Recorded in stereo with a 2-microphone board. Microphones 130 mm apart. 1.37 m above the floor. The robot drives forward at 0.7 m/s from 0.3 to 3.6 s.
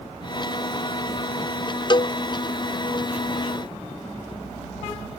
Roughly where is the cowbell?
Left.